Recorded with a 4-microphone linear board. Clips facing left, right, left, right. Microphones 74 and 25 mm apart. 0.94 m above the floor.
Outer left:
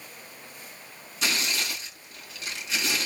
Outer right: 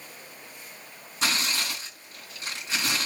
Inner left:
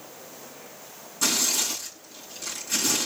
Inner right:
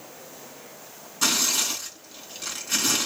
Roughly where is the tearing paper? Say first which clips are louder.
Outer right 1 dB, inner right 2 dB; right.